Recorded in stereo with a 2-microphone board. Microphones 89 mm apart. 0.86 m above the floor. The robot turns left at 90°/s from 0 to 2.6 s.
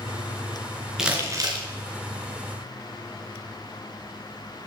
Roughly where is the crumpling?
Centre.